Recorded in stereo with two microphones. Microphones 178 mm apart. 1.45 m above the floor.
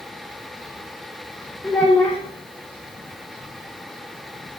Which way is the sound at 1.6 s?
10° left (ahead or behind).